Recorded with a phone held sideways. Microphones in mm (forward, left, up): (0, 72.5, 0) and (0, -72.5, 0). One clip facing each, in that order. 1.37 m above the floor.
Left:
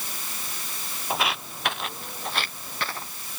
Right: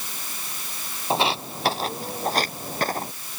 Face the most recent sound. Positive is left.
turn(degrees=-45)  # may be behind; listen again after turning